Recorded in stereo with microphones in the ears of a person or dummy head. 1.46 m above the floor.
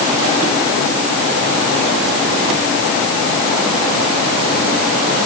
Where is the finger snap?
I don't hear a finger snap.